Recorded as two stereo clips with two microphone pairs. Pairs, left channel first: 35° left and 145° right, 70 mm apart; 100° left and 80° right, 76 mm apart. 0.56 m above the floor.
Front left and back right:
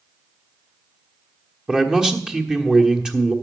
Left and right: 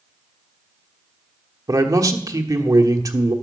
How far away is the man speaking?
About 1.3 m.